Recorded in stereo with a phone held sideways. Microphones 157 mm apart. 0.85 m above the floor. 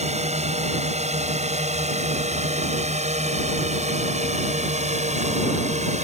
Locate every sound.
0.0 s a drone: 45° right (ahead or behind)